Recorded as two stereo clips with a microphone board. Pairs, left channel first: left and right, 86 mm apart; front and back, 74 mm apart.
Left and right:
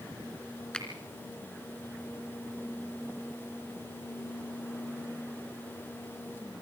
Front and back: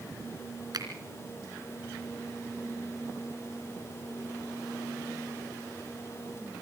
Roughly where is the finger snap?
Behind.